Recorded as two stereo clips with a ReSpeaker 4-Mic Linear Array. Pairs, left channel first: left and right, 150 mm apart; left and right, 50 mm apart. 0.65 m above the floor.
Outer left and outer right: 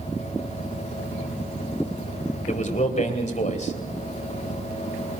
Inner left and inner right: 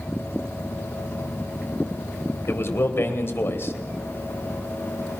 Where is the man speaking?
50° left (ahead or behind), 2.5 m.